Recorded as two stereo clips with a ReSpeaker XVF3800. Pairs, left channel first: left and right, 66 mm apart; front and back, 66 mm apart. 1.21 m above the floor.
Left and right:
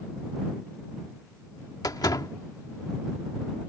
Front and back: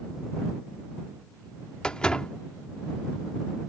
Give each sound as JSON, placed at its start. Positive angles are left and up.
{"t": 1.8, "sound": "a door slam", "azimuth_deg": 75}